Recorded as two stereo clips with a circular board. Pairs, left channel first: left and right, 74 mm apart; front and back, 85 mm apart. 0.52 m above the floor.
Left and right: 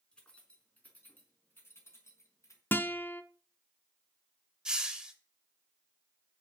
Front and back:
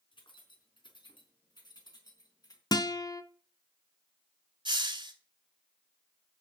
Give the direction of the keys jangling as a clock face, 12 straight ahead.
12 o'clock.